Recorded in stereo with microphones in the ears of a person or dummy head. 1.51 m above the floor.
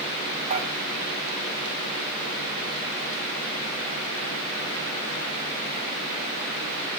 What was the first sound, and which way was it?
Dishes clattering, 40° right (ahead or behind).